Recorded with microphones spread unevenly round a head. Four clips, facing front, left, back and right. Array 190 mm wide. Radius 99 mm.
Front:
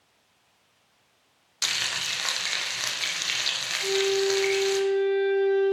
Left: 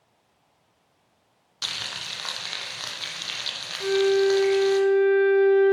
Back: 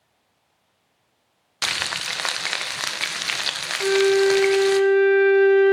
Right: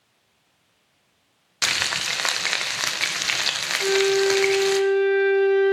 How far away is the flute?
About 0.7 m.